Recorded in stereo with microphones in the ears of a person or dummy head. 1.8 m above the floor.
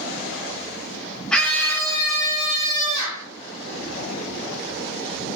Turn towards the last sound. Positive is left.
turn(degrees=20)  # may be behind; listen again after turning